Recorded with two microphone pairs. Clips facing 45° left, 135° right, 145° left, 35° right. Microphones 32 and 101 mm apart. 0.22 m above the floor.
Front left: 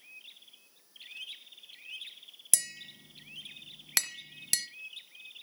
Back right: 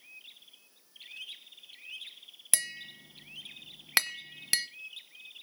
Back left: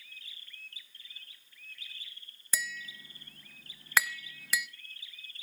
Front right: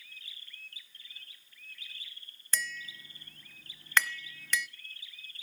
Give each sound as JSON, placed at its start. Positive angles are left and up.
{"t": 2.5, "sound": "tapping", "azimuth_deg": -145, "distance_m": 1.0}